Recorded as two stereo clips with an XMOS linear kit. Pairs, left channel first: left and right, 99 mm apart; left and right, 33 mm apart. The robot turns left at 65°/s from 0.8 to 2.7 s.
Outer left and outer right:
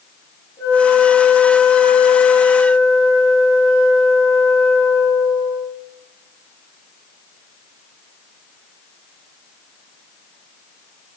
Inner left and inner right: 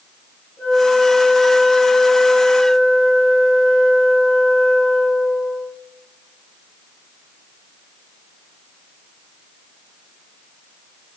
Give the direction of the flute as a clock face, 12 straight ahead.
7 o'clock.